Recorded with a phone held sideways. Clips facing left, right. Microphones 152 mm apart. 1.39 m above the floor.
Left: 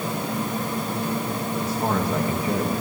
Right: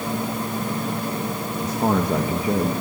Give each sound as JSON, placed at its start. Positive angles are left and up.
{"t": 1.6, "sound": "a man speaking", "side_deg": -20, "distance_m": 1.9}